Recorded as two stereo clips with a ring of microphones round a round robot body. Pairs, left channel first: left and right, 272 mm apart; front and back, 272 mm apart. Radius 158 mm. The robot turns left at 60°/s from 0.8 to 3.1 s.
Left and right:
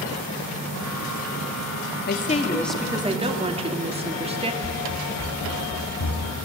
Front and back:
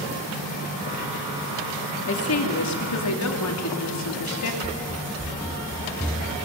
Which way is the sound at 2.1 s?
40° left.